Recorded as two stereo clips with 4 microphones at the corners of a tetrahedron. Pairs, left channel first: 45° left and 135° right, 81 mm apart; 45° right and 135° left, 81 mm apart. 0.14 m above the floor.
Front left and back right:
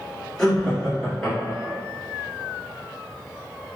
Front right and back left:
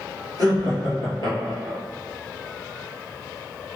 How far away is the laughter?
About 1.8 m.